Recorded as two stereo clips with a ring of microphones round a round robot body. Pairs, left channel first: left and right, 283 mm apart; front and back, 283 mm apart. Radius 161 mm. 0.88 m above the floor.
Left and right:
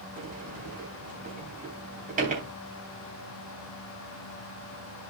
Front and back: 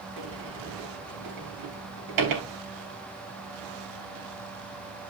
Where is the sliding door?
155° right, 3 m.